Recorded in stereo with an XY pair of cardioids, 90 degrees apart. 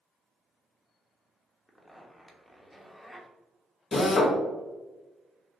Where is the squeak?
No squeak in this recording.